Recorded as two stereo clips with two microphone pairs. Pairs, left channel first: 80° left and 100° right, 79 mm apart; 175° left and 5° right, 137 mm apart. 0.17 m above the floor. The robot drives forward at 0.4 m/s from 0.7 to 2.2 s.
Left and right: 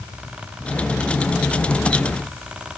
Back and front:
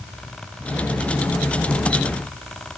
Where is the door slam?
No door slam in this recording.